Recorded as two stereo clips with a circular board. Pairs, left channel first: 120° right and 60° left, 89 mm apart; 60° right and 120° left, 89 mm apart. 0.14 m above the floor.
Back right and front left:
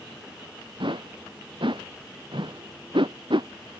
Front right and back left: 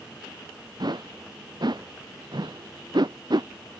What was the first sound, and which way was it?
A whoosh, 85° left.